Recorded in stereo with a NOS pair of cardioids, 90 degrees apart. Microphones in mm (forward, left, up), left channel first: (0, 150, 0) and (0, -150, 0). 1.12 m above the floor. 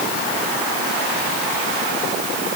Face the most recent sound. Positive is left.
No sound to turn to.